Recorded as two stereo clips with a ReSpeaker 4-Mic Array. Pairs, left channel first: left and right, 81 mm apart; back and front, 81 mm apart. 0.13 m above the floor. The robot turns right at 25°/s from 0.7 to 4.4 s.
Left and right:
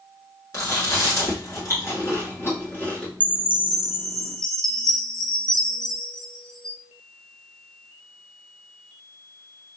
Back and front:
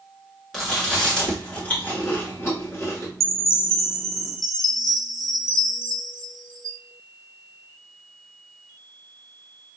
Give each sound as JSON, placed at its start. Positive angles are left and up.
{"t": 0.5, "sound": "chewing", "azimuth_deg": 95, "distance_m": 1.9}
{"t": 3.2, "sound": "a chime", "azimuth_deg": -25, "distance_m": 0.6}